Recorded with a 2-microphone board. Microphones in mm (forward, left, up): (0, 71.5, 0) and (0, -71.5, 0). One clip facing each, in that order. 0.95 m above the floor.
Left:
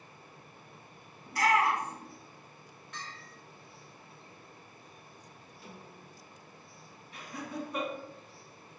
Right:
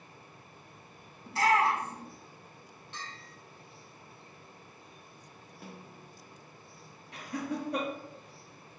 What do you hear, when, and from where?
1.3 s a shout: 25° right (ahead or behind), 0.7 m
2.9 s a bell: 30° right (ahead or behind), 1.8 m
5.6 s a snare drum: 60° right (ahead or behind), 0.8 m
7.1 s laughter: 80° right, 1.6 m